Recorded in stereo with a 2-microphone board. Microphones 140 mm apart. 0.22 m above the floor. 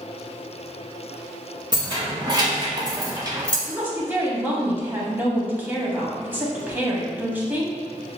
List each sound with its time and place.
1.7 s keys jangling: 30° right (ahead or behind), 1.5 m; by 3.6 s 25° right (ahead or behind), 0.9 m
3.7 s a woman speaking: 15° right (ahead or behind), 1.0 m